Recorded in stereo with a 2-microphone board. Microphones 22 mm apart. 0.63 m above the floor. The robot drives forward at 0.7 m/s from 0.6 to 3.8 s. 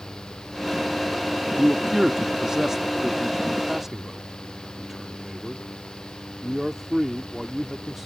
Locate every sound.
1.6 s a man speaking: 20° right (ahead or behind); by 8.1 s 15° right (ahead or behind)